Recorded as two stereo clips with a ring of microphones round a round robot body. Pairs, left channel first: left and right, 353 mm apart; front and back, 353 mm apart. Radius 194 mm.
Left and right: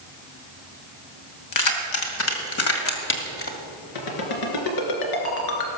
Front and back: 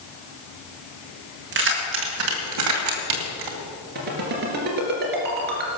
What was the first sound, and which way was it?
Keys jangling, 120° left.